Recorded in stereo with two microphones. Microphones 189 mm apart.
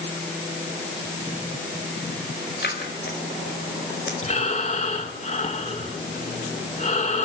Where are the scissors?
65° left (ahead or behind), 5 m.